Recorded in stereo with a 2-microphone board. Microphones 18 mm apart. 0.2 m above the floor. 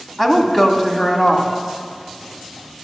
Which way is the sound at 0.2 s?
5° right (ahead or behind).